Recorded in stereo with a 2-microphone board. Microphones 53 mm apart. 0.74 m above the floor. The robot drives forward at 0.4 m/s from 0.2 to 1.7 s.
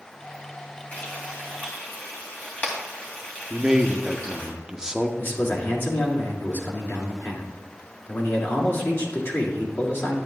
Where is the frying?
35° left (ahead or behind), 3 m; by 4.5 s 30° left (ahead or behind), 3 m.